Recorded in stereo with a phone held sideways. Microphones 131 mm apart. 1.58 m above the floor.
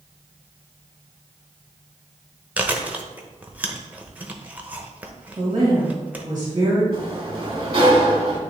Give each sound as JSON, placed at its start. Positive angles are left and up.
{"t": 2.6, "sound": "chewing", "side_deg": -10, "distance_m": 0.8}
{"t": 5.4, "sound": "a woman speaking", "side_deg": -35, "distance_m": 2.0}
{"t": 6.9, "sound": "a sliding door", "side_deg": -40, "distance_m": 1.6}